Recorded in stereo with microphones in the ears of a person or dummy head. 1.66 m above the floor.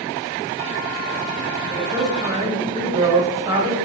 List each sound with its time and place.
1.7 s a woman speaking: 20° right (ahead or behind), 0.8 m